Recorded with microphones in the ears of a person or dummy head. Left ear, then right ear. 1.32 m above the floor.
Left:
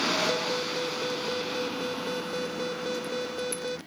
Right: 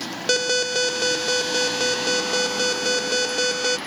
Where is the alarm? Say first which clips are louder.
Right 8 dB; 70° right (ahead or behind).